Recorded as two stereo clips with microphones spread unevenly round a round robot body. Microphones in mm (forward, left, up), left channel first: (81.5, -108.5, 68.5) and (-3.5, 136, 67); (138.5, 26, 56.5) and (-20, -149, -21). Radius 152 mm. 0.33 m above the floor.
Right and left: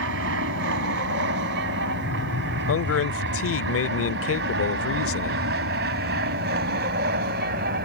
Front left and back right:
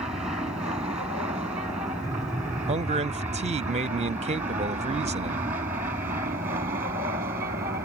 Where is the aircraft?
150° left; by 7.9 s 160° left.